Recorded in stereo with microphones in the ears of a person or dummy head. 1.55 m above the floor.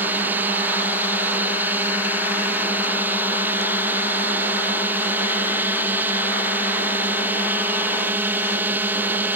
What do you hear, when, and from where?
0.0 s a drone: 15° right (ahead or behind)